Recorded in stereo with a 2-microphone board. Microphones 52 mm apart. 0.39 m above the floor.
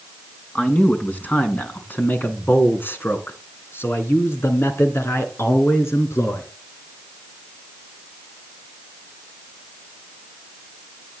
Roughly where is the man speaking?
Left.